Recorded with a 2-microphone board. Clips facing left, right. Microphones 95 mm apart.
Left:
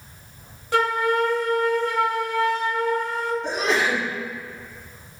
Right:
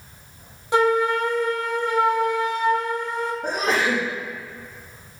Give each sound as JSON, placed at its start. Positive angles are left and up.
{"t": 0.7, "sound": "a flute", "side_deg": -20, "distance_m": 1.9}
{"t": 3.4, "sound": "a sneeze", "side_deg": -45, "distance_m": 5.0}